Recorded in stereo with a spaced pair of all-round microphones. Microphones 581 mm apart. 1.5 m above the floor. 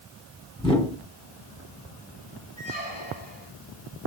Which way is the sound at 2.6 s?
50° left (ahead or behind).